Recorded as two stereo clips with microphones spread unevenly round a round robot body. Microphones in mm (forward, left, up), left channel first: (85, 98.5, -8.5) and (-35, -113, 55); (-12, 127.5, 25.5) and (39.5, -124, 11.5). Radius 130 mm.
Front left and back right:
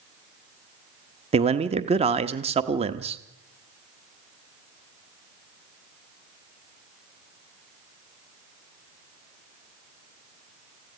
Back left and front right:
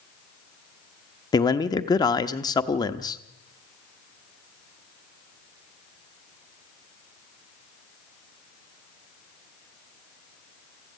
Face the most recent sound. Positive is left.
turn(degrees=170)